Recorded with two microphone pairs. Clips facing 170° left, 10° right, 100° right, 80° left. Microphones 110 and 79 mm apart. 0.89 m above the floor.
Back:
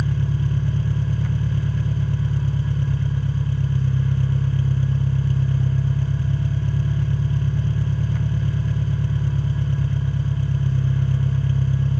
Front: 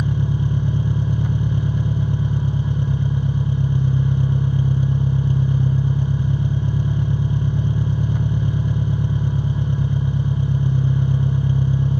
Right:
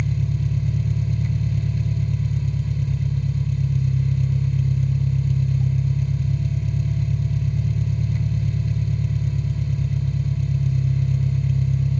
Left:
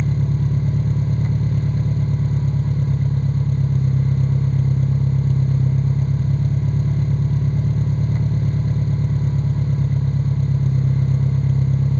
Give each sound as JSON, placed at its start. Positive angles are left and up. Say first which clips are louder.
{"t": 0.0, "sound": "an engine running", "louder": "front 2 dB, left 4 dB", "azimuth_deg": 55, "distance_m": 0.8}